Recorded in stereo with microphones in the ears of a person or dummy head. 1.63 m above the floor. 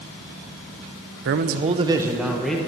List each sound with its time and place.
1.2 s a man speaking: 60° right (ahead or behind), 0.9 m; by 2.6 s centre (ahead or behind), 1.5 m